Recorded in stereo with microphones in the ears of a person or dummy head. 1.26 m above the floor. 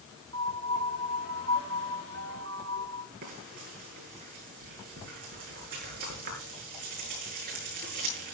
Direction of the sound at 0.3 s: 85° right.